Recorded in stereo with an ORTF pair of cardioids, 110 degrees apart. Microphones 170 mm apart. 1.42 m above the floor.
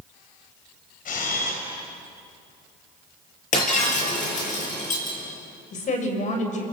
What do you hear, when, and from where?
1.1 s a camera shutter: 55° left, 5.5 m
3.5 s breaking glass: 50° left, 8.5 m
5.7 s a woman speaking: 45° left, 6 m